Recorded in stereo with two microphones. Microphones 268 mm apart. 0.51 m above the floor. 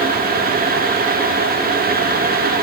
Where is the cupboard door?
I don't hear a cupboard door.